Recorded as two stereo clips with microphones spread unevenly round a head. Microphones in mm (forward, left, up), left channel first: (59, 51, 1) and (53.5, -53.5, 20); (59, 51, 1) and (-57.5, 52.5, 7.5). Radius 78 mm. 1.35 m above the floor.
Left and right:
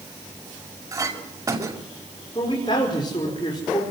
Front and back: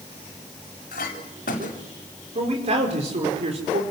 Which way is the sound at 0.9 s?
40° right.